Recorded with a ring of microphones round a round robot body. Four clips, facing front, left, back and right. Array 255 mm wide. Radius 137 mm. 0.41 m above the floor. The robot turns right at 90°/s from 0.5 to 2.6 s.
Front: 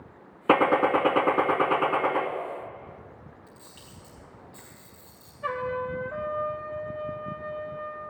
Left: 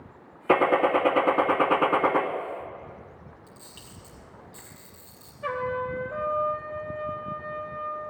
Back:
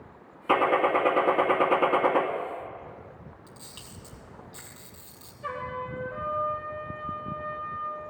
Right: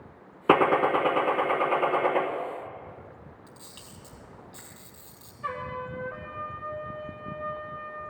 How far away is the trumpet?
About 3.5 m.